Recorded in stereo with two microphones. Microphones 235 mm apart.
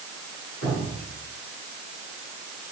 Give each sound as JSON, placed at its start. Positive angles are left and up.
{"t": 0.6, "sound": "dripping", "side_deg": -80, "distance_m": 7.5}